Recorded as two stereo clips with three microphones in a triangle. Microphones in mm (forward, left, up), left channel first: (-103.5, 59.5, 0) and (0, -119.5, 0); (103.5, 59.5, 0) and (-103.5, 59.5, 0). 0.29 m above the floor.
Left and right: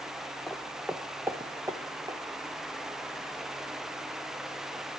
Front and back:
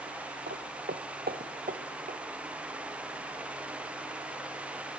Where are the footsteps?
150° right, 1.2 m; by 2.2 s 130° right, 2 m.